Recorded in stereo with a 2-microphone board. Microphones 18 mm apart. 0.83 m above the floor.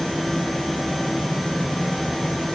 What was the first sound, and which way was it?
Only background noise.